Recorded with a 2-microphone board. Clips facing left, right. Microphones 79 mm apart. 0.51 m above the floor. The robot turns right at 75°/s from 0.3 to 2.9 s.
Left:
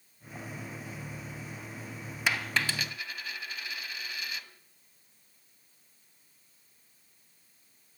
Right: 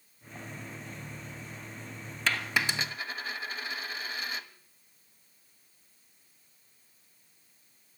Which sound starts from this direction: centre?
A dropped coin, at 2.3 s.